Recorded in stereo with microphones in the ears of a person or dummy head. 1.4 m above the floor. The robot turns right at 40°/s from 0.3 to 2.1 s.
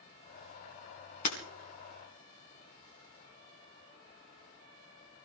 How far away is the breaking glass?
About 2.5 m.